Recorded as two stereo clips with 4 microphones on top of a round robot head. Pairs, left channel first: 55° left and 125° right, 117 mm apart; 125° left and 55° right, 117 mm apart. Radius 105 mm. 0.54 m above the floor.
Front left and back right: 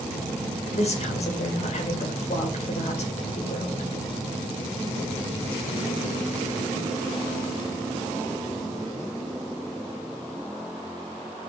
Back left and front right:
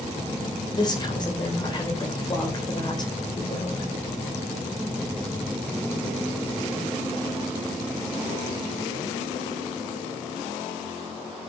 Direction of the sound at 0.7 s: 75° left.